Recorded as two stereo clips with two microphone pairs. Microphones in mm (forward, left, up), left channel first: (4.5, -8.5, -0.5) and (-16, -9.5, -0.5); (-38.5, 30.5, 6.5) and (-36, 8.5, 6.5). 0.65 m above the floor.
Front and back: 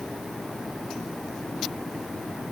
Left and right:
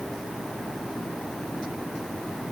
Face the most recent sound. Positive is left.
No sound to turn to.